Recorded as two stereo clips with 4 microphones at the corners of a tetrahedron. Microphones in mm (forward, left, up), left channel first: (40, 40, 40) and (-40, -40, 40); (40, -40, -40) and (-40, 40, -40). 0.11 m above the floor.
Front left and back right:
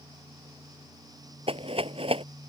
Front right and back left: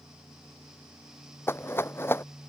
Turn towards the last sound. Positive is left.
turn(degrees=-115)